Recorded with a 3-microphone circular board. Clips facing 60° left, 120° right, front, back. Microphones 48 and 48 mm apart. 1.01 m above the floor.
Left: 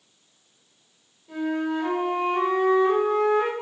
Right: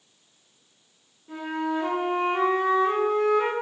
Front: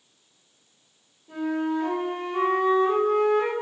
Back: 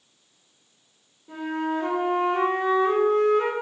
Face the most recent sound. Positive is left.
turn(degrees=-175)